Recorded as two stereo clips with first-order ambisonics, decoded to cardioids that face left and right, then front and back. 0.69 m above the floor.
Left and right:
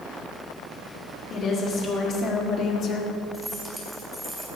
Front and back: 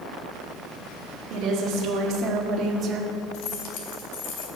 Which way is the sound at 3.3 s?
5° right.